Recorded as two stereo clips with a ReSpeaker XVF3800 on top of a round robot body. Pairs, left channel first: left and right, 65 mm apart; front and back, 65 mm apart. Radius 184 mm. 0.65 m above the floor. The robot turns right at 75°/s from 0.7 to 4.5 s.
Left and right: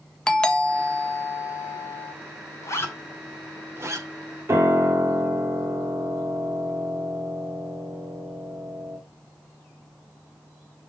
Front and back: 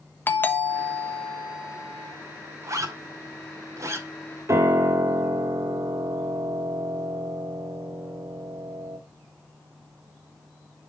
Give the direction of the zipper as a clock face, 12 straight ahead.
8 o'clock.